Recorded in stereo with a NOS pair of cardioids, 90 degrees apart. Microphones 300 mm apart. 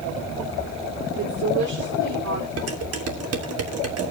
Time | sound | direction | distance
1.2 | a woman speaking | 70° right | 4 m
2.6 | dishes clattering | 55° right | 2.5 m